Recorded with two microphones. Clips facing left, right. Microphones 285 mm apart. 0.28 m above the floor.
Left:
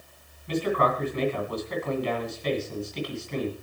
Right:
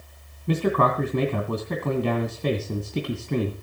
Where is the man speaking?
60° right (ahead or behind), 2.5 m.